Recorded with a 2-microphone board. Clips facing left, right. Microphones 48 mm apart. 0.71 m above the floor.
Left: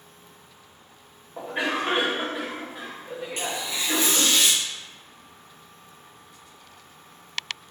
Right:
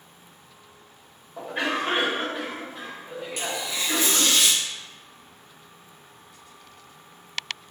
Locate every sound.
1.4 s a cough: 15° left (ahead or behind), 1.3 m
3.4 s tearing paper: 35° left (ahead or behind), 1.3 m